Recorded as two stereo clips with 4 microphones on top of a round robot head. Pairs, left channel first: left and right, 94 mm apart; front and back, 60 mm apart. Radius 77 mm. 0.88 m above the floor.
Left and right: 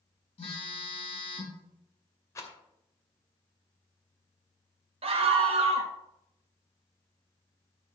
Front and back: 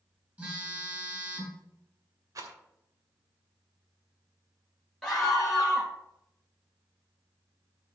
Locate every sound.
0.4 s a phone buzzing: 110° left, 6 m
2.4 s a rattle: 150° left, 2 m
5.0 s a scream: 90° right, 0.9 m